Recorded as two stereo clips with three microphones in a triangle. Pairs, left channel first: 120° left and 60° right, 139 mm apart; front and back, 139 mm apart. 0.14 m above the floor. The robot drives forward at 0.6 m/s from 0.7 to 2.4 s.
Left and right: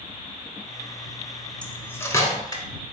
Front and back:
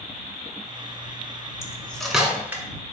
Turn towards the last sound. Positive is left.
turn(degrees=120)